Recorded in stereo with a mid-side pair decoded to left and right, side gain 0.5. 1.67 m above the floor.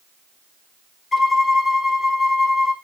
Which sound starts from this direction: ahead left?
A violin, at 1.1 s.